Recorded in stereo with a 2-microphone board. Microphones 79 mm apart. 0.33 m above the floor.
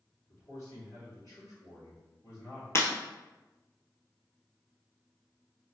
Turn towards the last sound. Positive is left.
turn(degrees=35)  # may be behind; listen again after turning